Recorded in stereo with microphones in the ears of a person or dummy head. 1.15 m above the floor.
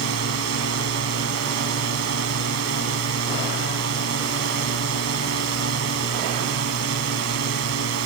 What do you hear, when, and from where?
0.0 s a drone: 75° right (ahead or behind)